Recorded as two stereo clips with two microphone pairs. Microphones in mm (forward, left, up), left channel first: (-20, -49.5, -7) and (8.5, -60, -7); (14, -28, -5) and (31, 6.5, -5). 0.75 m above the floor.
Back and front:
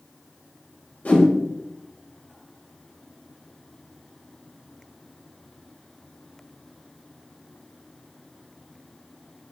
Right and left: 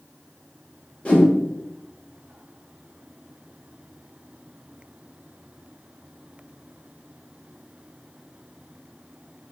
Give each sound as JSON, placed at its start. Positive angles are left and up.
{"t": 1.1, "sound": "a whoosh", "azimuth_deg": 180, "distance_m": 1.4}